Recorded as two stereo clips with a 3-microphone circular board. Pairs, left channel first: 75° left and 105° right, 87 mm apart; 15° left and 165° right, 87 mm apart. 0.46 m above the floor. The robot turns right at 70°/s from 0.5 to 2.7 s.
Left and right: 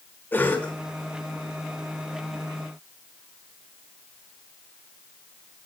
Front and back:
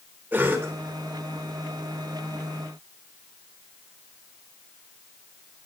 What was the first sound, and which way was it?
A cough, 135° left.